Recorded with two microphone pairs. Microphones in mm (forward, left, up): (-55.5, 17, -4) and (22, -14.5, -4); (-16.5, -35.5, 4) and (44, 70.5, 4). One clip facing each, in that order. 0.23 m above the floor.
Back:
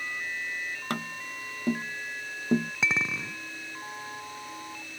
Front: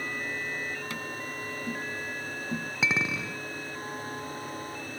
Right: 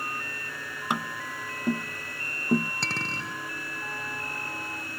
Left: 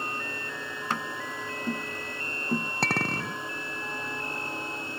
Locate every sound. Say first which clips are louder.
0.9 s tapping: back 1 dB, right 2 dB; 165° left
2.8 s a clink: front 1 dB, left 5 dB; 65° left